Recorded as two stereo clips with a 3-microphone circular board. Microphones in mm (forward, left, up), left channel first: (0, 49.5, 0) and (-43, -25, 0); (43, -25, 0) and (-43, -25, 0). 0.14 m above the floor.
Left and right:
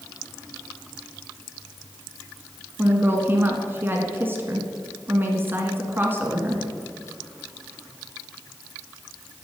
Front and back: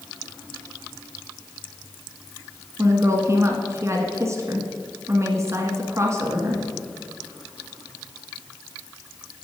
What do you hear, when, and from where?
2.8 s a woman speaking: 165° right, 1.4 m